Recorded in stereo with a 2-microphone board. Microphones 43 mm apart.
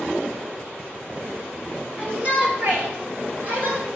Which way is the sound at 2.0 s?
30° right (ahead or behind).